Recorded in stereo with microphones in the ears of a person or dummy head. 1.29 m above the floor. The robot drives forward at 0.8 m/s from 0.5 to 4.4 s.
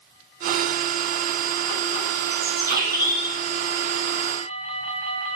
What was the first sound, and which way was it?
A bird, 15° right (ahead or behind).